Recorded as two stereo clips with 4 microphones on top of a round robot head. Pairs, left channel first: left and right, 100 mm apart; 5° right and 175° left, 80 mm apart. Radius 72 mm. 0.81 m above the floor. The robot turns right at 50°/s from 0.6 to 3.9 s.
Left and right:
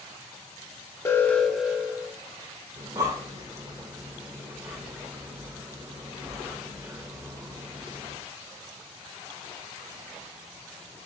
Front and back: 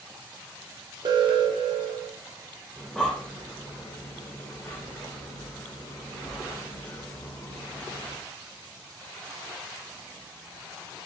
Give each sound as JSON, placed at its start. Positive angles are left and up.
{"t": 1.1, "sound": "an alarm", "azimuth_deg": 155, "distance_m": 0.8}
{"t": 2.8, "sound": "breathing", "azimuth_deg": -95, "distance_m": 0.5}